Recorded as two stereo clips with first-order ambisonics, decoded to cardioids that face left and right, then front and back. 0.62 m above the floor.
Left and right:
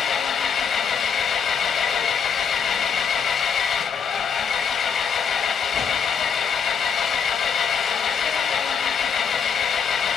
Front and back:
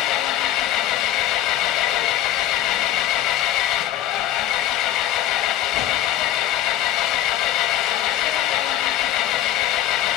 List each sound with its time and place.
0.0 s an engine running: 30° left, 0.7 m